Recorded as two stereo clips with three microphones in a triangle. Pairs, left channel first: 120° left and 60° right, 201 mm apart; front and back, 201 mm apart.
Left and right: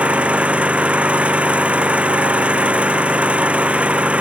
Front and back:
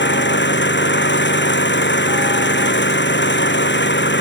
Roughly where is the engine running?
Ahead left.